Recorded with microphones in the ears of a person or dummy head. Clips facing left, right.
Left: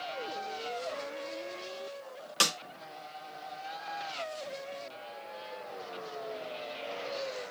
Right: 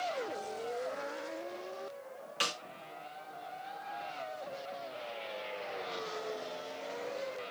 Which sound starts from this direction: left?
A snare drum, at 2.4 s.